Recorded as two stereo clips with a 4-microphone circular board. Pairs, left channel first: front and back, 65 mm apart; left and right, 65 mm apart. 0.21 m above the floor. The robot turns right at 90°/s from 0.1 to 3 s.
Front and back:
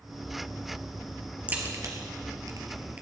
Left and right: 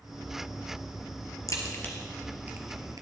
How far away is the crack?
About 2.5 m.